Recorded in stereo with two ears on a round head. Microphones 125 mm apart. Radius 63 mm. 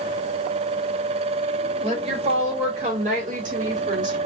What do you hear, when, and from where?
1.8 s a woman speaking: 40° right (ahead or behind), 2.5 m; by 4.2 s 60° right (ahead or behind), 3.5 m